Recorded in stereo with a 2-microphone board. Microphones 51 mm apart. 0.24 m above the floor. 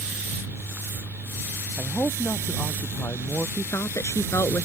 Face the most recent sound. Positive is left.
turn(degrees=70)  # may be behind; listen again after turning